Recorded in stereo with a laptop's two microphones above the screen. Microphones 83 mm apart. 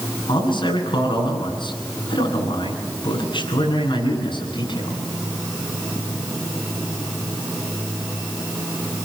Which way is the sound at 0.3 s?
75° left (ahead or behind).